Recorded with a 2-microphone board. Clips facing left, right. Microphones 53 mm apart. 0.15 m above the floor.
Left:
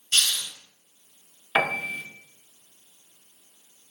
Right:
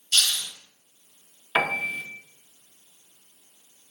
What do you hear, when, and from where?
0.1 s a hiss: 30° left (ahead or behind), 1.8 m
1.6 s a piano: 5° right (ahead or behind), 0.8 m